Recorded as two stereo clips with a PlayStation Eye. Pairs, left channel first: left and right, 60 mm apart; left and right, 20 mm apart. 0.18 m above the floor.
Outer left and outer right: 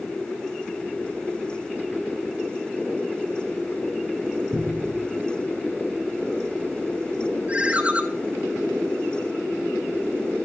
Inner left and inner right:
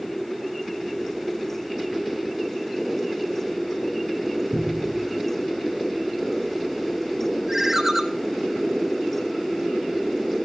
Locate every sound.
4.5 s a cupboard door: 35° right (ahead or behind), 1.4 m
7.5 s a ringtone: 20° right (ahead or behind), 0.6 m